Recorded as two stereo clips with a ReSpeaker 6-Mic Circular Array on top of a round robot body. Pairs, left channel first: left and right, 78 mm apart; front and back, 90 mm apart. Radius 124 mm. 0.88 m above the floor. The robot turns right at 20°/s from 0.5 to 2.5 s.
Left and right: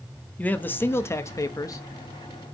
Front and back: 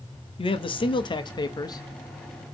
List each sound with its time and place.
0.4 s a man speaking: 20° left, 1.0 m; by 1.8 s 45° left, 1.0 m